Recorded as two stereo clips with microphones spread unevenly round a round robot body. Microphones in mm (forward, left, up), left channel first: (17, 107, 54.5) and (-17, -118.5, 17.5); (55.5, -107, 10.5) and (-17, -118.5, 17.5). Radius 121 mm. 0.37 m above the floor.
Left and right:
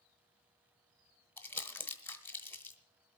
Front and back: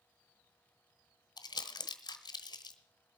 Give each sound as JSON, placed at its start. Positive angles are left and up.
{"t": 1.4, "sound": "crumpling", "azimuth_deg": -5, "distance_m": 1.0}